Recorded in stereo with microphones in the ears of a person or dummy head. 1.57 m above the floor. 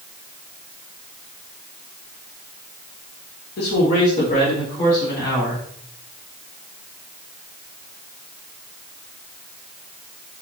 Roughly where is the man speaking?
Left.